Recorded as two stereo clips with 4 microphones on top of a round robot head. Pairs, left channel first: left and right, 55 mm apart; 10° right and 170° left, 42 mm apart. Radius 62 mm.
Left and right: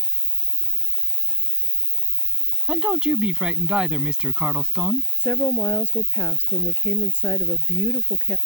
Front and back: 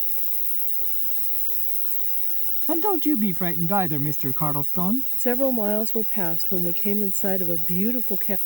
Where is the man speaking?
165° right.